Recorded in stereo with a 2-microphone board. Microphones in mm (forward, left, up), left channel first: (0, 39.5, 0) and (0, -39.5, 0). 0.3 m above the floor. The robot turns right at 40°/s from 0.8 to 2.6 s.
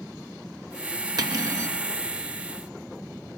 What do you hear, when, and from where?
1.2 s cutlery clinking: 60° right (ahead or behind), 3 m; by 1.8 s 35° right (ahead or behind), 3 m